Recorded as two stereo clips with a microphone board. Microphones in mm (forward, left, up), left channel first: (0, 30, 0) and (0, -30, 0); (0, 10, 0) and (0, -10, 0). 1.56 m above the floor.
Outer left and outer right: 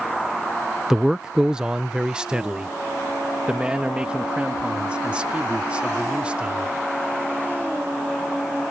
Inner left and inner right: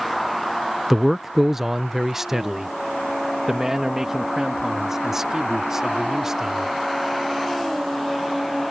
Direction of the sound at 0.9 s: 5° right (ahead or behind).